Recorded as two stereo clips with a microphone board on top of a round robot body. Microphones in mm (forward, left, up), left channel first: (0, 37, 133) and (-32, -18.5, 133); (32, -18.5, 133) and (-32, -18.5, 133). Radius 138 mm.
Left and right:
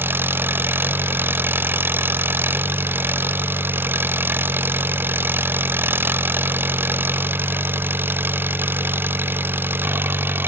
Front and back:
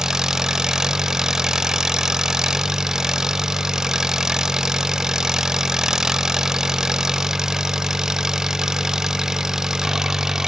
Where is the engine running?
105° right, 0.8 m.